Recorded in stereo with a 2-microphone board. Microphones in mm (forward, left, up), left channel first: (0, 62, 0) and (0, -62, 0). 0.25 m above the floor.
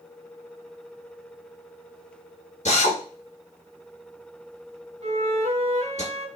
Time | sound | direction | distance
2.6 | a drill | 70° left (ahead or behind) | 1.7 m
5.0 | a flute | 60° right (ahead or behind) | 0.9 m